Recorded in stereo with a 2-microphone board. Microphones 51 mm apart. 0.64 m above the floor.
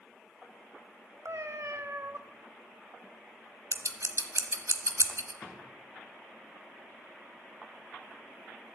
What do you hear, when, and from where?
1.2 s a cat meowing: 60° right (ahead or behind), 0.7 m
3.7 s scissors: 70° right (ahead or behind), 1.0 m
5.4 s a drawer: 35° left (ahead or behind), 3.5 m